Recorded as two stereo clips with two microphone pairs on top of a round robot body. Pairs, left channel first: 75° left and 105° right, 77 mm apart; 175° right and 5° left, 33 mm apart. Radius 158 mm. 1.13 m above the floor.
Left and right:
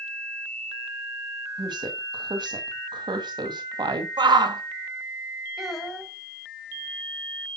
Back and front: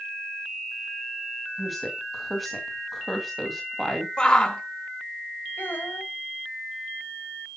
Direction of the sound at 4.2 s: 110° right.